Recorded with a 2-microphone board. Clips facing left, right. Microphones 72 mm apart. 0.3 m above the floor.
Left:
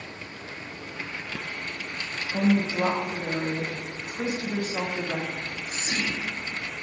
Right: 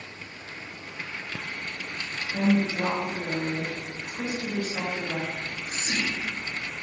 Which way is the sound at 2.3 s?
25° left (ahead or behind).